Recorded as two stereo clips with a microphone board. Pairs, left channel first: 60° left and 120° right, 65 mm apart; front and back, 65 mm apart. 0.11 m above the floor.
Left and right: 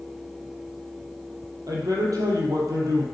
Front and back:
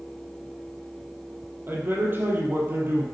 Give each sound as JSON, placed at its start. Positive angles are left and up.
{"t": 1.7, "sound": "a man speaking", "azimuth_deg": -125, "distance_m": 3.5}